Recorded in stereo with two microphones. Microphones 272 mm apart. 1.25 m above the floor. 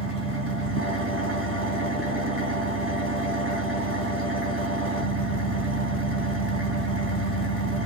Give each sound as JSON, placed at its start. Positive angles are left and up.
{"t": 0.0, "sound": "an engine running", "side_deg": -50, "distance_m": 3.5}